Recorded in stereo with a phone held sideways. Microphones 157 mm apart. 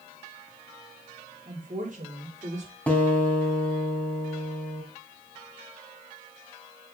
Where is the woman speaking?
60° right (ahead or behind), 4.5 m; by 2.7 s 50° right (ahead or behind), 5.5 m.